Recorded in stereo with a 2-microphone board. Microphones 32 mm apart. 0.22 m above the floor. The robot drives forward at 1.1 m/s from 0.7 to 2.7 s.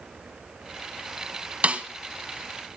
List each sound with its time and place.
1.6 s a snare drum: 40° right (ahead or behind), 1.4 m; by 1.9 s 35° right (ahead or behind), 1.5 m